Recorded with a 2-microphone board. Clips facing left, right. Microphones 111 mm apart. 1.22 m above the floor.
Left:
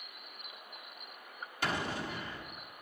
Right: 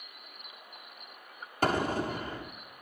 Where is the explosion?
45° right (ahead or behind), 1.3 m.